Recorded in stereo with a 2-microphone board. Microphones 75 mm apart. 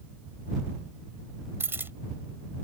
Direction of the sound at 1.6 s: 30° right (ahead or behind).